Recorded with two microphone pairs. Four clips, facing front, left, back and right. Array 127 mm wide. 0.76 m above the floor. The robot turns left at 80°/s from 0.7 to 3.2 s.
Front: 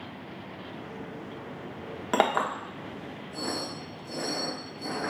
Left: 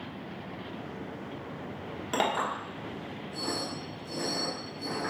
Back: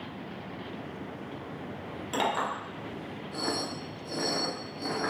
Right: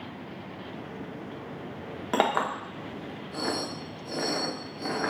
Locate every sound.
2.1 s a clink: 25° right, 0.8 m; by 5.1 s 115° right, 0.8 m